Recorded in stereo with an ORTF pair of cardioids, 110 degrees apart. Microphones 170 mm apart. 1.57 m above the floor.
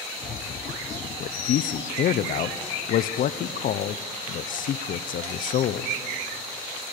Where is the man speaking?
55° left, 0.9 m.